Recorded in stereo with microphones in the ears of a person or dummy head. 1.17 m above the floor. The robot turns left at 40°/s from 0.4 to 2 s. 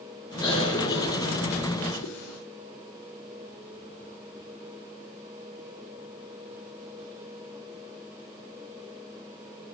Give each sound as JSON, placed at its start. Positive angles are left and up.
{"t": 0.4, "sound": "a cough", "side_deg": 20, "distance_m": 3.5}